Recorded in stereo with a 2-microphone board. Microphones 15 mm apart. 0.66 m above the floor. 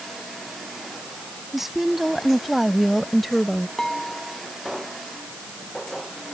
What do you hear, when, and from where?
1.5 s a woman speaking: 15° right (ahead or behind); by 3.7 s 15° left (ahead or behind)
3.8 s dishes clattering: 30° left (ahead or behind)